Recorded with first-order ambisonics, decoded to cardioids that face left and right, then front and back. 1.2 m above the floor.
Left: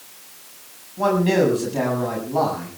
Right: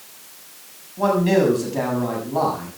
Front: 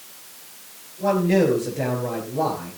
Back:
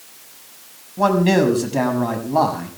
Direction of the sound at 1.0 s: 175° left.